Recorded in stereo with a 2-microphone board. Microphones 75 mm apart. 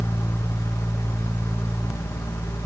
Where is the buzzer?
No buzzer in this recording.